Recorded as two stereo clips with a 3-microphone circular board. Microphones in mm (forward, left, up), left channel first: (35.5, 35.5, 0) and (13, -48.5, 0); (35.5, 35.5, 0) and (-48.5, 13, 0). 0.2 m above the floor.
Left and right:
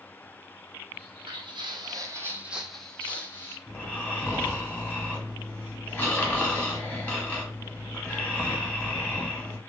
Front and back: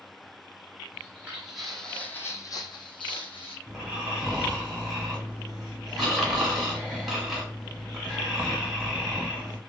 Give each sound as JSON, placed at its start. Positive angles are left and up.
{"t": 0.9, "sound": "footsteps", "azimuth_deg": -95, "distance_m": 0.9}
{"t": 3.7, "sound": "snoring", "azimuth_deg": 110, "distance_m": 1.0}